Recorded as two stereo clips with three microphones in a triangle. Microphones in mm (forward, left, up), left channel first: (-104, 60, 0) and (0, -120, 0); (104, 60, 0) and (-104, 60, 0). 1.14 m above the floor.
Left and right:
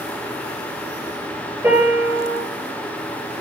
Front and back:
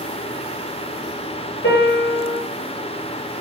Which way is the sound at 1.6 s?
25° left.